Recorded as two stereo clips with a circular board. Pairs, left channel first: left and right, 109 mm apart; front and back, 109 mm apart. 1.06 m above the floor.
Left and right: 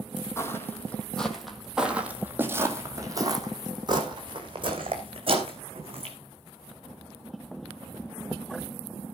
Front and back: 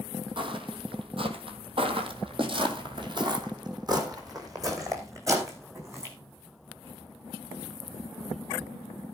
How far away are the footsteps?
About 1.9 m.